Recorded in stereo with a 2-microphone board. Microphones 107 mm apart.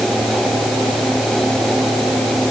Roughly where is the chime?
I don't hear a chime.